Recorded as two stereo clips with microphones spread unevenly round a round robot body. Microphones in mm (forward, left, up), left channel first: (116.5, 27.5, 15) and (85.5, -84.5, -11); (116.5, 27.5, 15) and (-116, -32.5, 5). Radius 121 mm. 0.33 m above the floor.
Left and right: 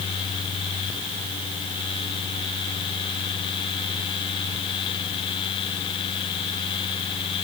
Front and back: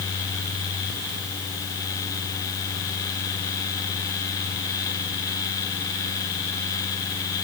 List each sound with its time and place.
Only background noise.